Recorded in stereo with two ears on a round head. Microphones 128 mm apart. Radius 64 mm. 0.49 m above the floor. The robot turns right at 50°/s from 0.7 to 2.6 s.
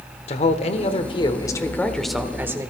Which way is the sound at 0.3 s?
110° left.